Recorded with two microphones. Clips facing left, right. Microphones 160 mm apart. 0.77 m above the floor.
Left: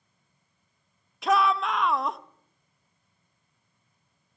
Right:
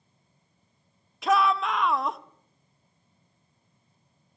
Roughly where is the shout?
Centre.